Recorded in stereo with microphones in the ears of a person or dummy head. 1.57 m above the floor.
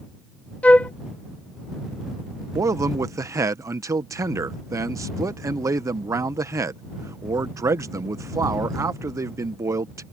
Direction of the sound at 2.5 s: 15° right (ahead or behind).